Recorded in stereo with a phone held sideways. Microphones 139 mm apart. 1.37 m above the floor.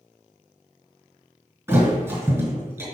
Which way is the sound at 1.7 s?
15° right (ahead or behind).